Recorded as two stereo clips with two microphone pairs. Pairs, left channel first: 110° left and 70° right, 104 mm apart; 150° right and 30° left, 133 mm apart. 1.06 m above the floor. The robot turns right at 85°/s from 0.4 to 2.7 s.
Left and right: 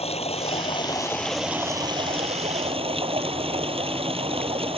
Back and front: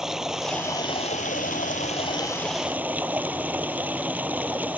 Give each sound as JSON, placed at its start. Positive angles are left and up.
{"t": 0.0, "sound": "running water", "azimuth_deg": 115}